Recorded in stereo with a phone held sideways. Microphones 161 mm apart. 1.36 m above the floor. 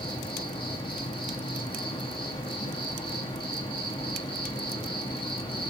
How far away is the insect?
About 1.4 m.